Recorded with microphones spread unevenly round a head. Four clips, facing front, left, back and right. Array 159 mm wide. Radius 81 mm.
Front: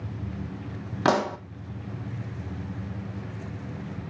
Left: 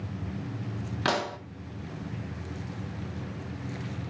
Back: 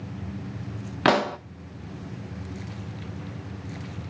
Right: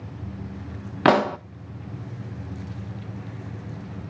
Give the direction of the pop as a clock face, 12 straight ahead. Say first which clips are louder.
Right 11 dB, back 2 dB; 3 o'clock.